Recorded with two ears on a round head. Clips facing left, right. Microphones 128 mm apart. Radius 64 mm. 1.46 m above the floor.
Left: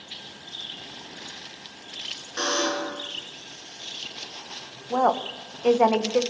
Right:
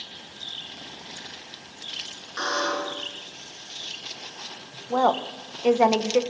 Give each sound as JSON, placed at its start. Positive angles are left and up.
{"t": 2.4, "sound": "a buzzer", "side_deg": 30, "distance_m": 4.5}
{"t": 4.9, "sound": "a woman speaking", "side_deg": -5, "distance_m": 1.3}